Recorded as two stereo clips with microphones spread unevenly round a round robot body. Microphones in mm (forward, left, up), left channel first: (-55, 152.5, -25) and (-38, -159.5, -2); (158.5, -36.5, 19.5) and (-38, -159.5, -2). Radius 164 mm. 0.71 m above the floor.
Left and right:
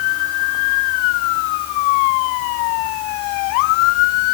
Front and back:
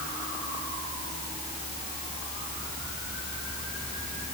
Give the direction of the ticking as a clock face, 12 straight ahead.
No ticking in this recording.